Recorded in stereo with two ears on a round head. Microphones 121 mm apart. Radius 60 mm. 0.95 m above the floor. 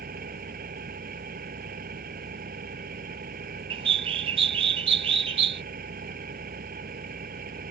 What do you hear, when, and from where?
0.0 s an engine running: 70° right (ahead or behind)
3.7 s a bird: 45° right (ahead or behind)